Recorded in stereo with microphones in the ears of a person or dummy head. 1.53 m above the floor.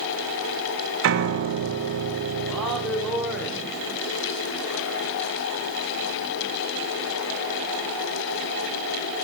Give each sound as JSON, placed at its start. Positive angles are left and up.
{"t": 1.0, "sound": "a piano", "side_deg": -70, "distance_m": 0.6}
{"t": 2.5, "sound": "a man speaking", "side_deg": 0, "distance_m": 0.9}